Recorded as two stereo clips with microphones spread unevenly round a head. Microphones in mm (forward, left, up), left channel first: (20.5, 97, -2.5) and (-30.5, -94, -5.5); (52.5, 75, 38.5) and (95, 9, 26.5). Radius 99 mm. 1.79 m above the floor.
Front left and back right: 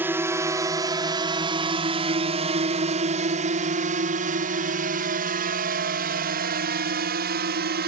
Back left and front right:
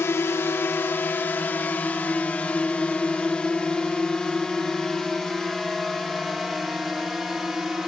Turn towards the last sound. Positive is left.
turn(degrees=-145)